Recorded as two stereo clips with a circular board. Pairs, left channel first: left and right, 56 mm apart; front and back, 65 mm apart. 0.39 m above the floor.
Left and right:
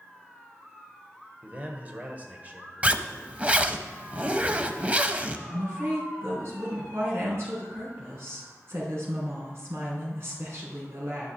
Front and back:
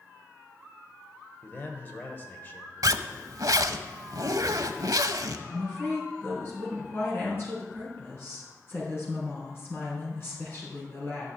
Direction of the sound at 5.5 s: 55° right.